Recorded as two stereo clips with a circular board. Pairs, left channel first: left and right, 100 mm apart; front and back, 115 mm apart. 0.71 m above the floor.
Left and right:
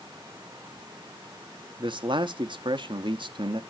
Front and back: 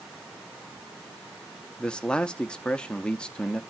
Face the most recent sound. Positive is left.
turn(degrees=-80)